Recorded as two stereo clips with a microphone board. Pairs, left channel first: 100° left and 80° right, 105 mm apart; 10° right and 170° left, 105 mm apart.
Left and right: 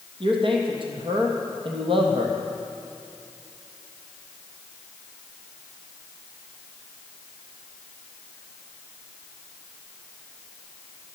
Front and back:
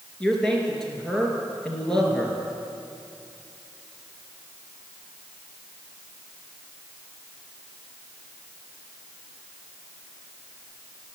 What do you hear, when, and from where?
0.2 s a man speaking: 95° right, 3 m